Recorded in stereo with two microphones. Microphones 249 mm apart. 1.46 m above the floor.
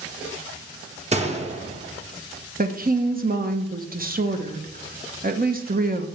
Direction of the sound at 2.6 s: 35° right (ahead or behind).